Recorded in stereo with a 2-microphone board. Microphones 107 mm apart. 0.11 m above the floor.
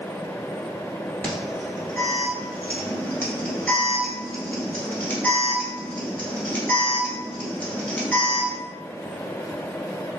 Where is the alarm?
15° left (ahead or behind), 1.2 m.